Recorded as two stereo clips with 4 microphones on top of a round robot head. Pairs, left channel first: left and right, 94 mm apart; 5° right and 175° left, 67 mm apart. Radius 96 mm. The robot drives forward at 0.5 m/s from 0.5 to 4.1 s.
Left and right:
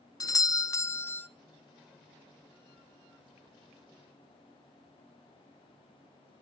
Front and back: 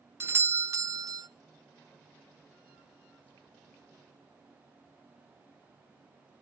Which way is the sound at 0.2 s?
130° left.